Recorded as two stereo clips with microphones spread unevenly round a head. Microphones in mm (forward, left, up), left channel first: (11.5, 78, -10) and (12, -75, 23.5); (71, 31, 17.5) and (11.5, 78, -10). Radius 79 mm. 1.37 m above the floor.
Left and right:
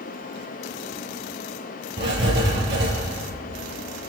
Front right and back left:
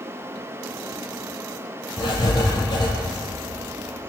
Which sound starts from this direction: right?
Writing, at 2.0 s.